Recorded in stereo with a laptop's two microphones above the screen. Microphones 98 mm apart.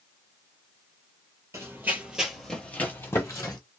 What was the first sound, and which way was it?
Running footsteps, 30° right (ahead or behind).